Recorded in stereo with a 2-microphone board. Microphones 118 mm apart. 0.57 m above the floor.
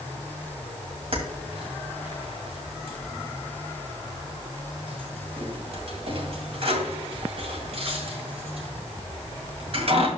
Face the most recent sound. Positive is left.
turn(degrees=-55)  # may be behind; listen again after turning